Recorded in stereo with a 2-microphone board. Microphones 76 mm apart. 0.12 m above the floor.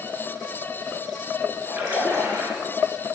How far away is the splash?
About 1.0 m.